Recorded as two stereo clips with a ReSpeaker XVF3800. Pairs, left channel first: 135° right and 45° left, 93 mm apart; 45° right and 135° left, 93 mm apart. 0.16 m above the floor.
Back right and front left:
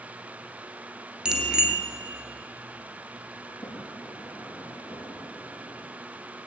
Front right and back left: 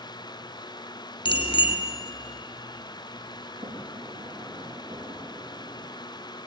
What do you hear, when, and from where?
1.2 s a bicycle bell: 35° right, 2 m
3.4 s a sliding door: straight behind, 6 m